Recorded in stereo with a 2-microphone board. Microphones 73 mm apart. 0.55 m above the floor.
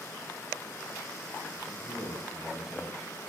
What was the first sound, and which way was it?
A man speaking, 5° right (ahead or behind).